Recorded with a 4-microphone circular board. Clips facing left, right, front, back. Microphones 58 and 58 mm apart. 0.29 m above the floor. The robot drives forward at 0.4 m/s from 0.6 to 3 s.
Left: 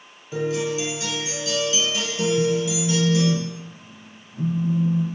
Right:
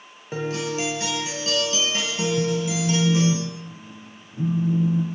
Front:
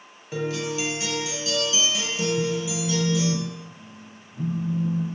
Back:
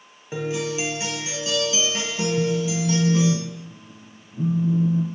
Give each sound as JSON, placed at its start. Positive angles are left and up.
{"t": 0.3, "sound": "a guitar", "azimuth_deg": -115, "distance_m": 1.2}
{"t": 2.4, "sound": "a phone buzzing", "azimuth_deg": -140, "distance_m": 1.1}